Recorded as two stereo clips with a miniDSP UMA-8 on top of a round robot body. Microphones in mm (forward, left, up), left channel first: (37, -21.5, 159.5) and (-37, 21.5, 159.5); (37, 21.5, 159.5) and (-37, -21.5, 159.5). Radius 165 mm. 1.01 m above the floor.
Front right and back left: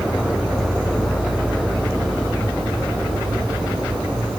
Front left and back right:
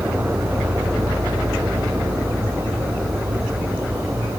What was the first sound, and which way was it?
An insect, 155° left.